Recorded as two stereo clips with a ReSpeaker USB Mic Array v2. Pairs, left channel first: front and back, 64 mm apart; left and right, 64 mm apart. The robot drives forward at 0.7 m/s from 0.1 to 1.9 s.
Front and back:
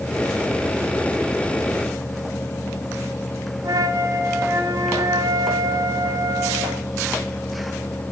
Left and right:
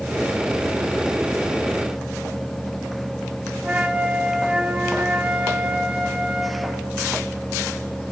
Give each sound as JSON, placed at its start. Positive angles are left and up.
{"t": 3.6, "sound": "a flute", "azimuth_deg": -160, "distance_m": 2.5}